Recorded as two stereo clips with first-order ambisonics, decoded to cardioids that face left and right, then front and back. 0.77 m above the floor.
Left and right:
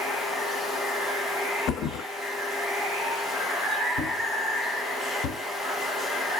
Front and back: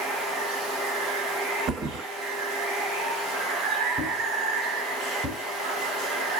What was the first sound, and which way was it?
Running water, 175° right.